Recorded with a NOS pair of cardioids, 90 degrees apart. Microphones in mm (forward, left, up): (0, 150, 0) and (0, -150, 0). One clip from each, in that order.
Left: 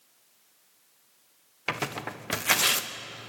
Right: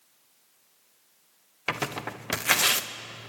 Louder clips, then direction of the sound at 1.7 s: Right 1 dB; 10° right.